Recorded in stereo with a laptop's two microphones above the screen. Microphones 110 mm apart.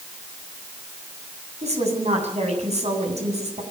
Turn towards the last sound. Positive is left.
turn(degrees=-80)